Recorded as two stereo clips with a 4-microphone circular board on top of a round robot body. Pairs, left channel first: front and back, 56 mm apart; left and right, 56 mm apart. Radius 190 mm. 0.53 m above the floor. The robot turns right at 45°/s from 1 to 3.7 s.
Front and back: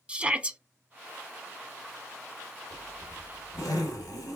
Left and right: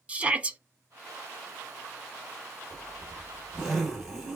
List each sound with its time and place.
0.1 s a shout: 135° right, 0.8 m
2.7 s a zipper: 55° right, 1.8 m; by 4.4 s 10° right, 1.8 m